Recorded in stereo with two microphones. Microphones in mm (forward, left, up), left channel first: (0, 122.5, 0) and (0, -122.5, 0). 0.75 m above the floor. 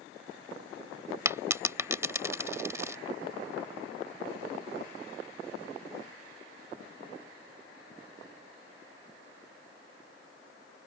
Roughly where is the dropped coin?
Centre.